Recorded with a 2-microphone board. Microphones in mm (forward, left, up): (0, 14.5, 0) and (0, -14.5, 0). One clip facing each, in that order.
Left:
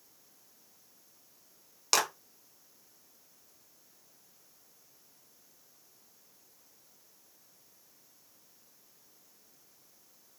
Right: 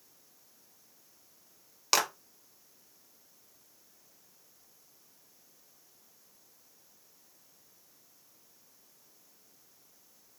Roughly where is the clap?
Centre.